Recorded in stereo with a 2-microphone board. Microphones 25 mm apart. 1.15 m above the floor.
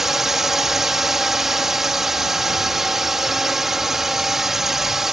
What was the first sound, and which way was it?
A drone, 15° right (ahead or behind).